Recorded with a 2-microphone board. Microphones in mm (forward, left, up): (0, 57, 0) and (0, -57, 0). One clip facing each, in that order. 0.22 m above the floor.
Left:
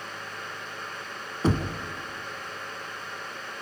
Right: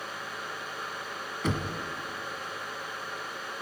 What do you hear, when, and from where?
1.4 s knocking: 35° left (ahead or behind), 1.5 m